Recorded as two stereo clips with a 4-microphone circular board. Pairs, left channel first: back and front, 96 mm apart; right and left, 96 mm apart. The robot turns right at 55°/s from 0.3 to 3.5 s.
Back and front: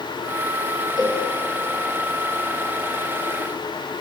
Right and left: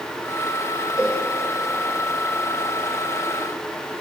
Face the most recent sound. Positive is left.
turn(degrees=100)